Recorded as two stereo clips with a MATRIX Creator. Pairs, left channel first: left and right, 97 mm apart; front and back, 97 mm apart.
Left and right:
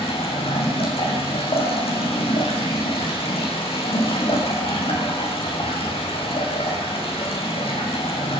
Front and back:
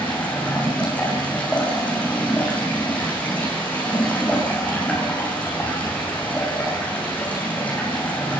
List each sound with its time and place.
0.0 s running water: 75° left, 9 m